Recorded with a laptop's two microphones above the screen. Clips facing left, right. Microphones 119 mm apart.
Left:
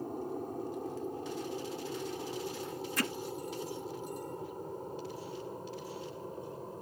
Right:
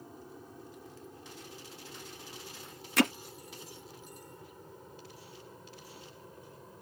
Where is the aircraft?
50° left (ahead or behind); by 6.8 s 35° left (ahead or behind).